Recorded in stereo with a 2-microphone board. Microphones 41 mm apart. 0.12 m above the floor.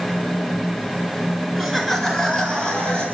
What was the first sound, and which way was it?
Laughter, 5° right (ahead or behind).